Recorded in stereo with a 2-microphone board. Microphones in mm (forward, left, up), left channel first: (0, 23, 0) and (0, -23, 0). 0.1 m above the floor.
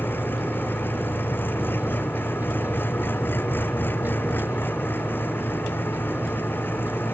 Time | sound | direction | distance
0.0 | an engine running | 50° left (ahead or behind) | ?